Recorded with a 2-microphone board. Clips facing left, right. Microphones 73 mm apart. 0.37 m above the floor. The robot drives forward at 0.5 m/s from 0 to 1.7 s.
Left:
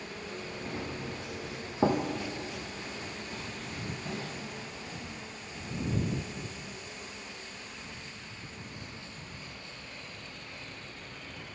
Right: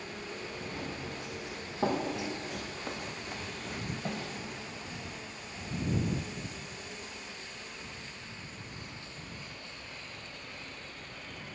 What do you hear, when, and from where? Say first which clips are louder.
0.7 s running footsteps: left 3 dB; 35° left (ahead or behind), 3 m; by 4.2 s 60° right (ahead or behind), 3 m